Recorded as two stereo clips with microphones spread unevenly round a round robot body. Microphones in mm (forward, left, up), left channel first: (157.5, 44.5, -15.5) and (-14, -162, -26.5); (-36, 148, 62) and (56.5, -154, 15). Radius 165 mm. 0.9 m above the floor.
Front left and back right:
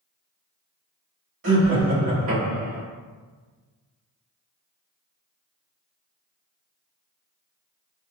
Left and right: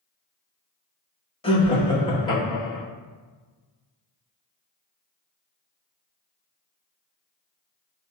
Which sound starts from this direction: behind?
Laughter, at 1.4 s.